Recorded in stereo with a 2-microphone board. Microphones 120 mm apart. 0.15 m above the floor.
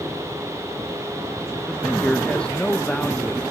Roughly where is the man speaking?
Centre.